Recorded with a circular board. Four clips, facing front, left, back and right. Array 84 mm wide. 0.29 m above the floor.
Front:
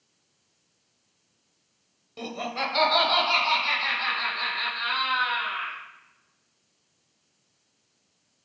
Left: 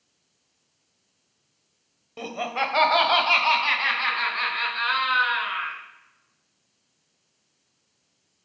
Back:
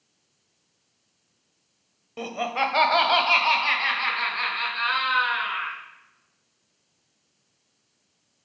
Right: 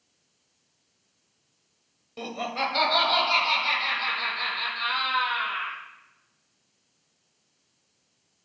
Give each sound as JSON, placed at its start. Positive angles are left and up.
{"t": 2.2, "sound": "laughter", "azimuth_deg": 150, "distance_m": 0.9}